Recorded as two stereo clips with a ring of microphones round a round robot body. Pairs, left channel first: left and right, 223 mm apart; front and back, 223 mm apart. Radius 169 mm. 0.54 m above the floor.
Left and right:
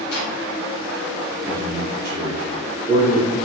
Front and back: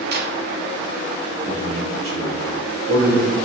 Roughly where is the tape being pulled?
Behind left.